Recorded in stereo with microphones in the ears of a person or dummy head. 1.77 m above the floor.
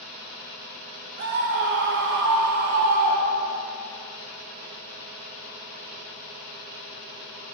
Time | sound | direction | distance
1.2 | a scream | 55° right (ahead or behind) | 1.3 m